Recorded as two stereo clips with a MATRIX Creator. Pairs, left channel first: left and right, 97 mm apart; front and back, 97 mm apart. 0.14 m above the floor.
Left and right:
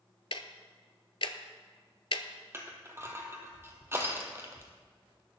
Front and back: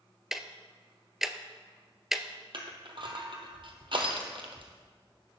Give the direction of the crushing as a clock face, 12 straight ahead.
5 o'clock.